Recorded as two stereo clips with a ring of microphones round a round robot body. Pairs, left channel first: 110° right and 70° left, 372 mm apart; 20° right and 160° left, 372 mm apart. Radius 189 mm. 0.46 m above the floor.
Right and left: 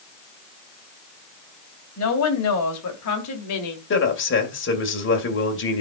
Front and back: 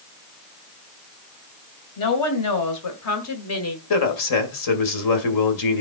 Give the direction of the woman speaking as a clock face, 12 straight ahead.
2 o'clock.